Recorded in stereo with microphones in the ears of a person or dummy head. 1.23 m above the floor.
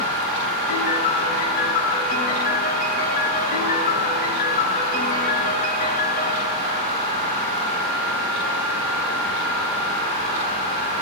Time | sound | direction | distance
0.7 | a piano | 45° left (ahead or behind) | 4.5 m